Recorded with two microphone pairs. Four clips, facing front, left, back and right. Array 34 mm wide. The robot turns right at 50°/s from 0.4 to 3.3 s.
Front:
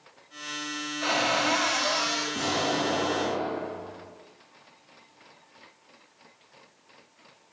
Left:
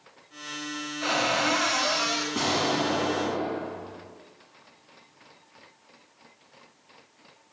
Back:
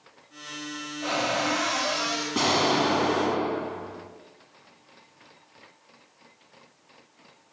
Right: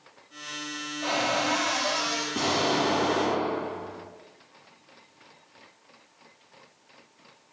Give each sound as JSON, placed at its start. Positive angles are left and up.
{"t": 1.0, "sound": "a cupboard door", "azimuth_deg": 40, "distance_m": 1.8}
{"t": 2.4, "sound": "an explosion", "azimuth_deg": 175, "distance_m": 0.6}